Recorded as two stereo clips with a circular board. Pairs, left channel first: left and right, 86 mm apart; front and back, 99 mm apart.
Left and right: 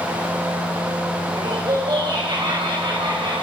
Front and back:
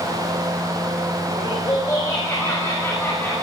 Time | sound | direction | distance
1.3 | laughter | 50° right | 5.5 m